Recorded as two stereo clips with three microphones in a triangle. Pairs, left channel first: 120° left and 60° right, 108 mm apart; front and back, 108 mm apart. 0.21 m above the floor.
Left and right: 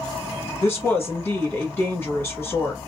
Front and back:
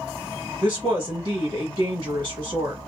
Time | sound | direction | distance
0.6 | a woman speaking | 175° right | 1.5 m